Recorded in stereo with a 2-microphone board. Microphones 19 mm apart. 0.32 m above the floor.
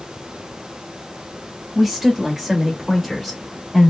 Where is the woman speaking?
15° right (ahead or behind), 1.5 m; by 3.9 s centre (ahead or behind), 1.5 m.